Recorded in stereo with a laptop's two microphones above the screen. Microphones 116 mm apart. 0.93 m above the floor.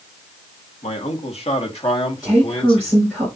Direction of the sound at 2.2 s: Centre (ahead or behind).